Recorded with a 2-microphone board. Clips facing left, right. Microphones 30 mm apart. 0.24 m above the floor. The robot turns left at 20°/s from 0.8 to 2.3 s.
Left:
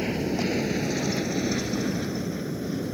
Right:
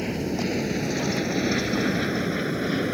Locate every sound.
0.0 s an aircraft: 5° left (ahead or behind); by 3.0 s 55° right (ahead or behind)